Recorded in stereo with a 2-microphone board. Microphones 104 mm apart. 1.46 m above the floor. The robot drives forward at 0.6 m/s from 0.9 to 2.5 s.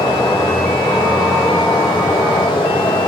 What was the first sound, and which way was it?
Running water, 40° left (ahead or behind).